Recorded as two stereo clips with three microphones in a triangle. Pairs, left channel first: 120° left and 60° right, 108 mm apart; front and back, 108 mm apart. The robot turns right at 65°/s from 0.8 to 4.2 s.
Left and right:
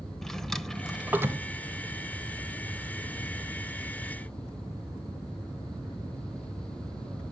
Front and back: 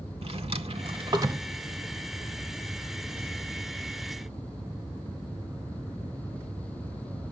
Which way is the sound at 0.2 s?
155° right.